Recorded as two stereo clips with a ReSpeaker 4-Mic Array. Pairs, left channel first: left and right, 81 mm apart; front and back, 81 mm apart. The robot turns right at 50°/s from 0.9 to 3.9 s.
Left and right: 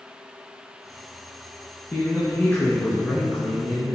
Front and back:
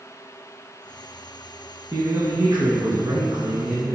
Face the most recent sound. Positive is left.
turn(degrees=-140)